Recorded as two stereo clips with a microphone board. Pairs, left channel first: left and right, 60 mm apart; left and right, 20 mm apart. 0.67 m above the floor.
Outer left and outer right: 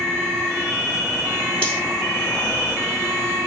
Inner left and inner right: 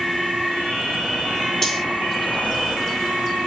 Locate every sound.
1.6 s cutlery clinking: 20° left (ahead or behind), 5 m